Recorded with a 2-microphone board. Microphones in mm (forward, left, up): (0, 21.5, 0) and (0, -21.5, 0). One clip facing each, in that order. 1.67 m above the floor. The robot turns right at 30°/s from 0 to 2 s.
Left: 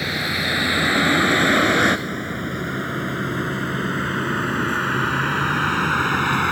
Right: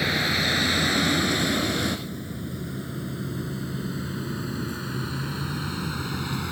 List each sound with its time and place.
0.0 s a vehicle: 5° right (ahead or behind); by 6.5 s 55° left (ahead or behind)